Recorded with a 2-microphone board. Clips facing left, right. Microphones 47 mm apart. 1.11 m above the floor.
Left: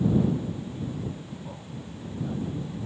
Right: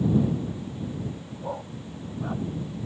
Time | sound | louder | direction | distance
1.4 | a dog barking | right 6 dB | 40° right (ahead or behind) | ?